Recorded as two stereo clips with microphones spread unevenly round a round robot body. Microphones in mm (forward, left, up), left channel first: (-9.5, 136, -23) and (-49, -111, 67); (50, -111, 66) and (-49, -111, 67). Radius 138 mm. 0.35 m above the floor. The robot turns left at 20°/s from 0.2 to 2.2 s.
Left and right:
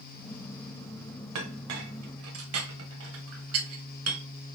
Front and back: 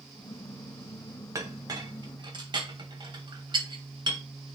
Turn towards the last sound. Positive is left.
turn(degrees=-140)